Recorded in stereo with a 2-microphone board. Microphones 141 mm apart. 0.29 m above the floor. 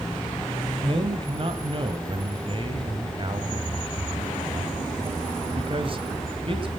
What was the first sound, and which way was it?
A man speaking, 40° right (ahead or behind).